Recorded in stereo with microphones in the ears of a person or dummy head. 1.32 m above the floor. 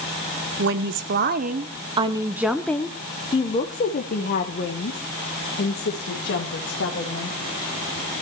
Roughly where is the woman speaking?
Right.